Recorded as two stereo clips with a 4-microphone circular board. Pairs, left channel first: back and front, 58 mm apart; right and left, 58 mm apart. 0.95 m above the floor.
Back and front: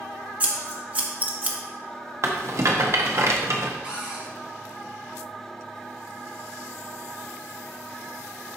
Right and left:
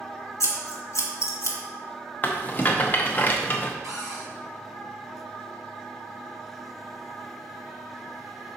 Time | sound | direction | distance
0.4 | scissors | 65° right | 1.1 m
2.2 | a rattle | 35° right | 0.9 m
3.8 | a cupboard door | 70° left | 2.5 m